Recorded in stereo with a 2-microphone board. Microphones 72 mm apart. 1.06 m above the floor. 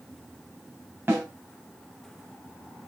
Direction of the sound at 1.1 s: 35° right (ahead or behind).